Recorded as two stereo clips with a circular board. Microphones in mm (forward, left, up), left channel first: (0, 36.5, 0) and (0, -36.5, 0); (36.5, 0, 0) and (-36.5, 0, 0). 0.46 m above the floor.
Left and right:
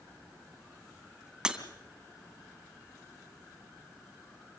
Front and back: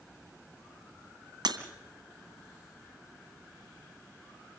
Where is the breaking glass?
170° right, 2 m.